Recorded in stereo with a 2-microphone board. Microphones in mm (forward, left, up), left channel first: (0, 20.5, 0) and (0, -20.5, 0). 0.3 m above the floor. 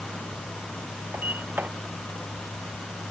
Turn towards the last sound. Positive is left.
turn(degrees=-50)  # may be behind; listen again after turning